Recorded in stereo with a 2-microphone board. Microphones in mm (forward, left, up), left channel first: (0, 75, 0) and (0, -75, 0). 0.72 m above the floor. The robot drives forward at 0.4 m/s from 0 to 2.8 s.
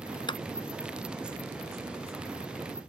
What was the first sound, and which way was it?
A clap, 30° left (ahead or behind).